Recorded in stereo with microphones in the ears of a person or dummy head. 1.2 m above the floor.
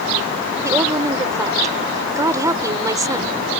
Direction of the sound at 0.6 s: 15° right (ahead or behind).